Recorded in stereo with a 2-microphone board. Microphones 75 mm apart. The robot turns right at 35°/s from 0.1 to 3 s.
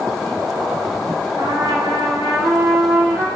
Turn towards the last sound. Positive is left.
turn(degrees=-20)